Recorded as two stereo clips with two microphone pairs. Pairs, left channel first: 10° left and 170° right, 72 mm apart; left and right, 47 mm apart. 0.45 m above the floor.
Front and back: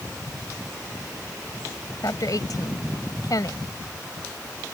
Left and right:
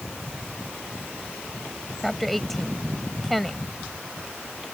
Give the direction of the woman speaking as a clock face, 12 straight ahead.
12 o'clock.